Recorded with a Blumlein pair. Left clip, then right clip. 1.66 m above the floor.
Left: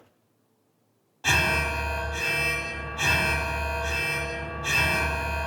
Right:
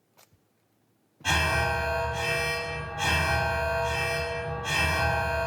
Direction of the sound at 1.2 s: 40° left.